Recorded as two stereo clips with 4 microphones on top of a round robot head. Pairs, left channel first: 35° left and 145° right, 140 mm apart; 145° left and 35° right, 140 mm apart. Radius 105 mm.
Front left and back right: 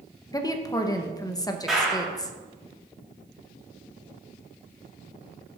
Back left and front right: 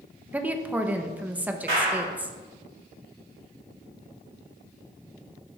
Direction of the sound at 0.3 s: 25° left.